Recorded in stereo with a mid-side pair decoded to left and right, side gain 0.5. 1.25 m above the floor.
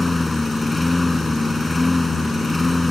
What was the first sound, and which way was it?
A lawn mower, 20° left.